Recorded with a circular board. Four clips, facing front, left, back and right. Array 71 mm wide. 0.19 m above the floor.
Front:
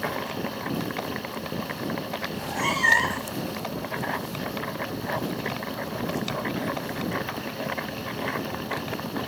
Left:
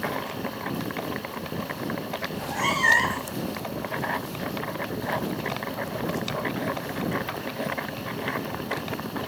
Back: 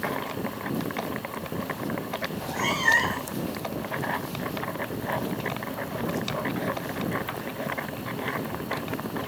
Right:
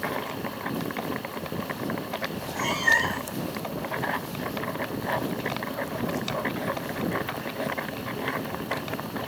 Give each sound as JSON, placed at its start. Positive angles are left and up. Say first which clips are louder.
{"t": 2.3, "sound": "a cat meowing", "louder": "left 5 dB, front 2 dB", "azimuth_deg": 55, "distance_m": 2.5}